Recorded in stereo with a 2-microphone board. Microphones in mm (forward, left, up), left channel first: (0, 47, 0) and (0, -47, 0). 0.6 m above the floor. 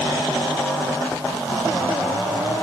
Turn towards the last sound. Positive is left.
No sound to turn to.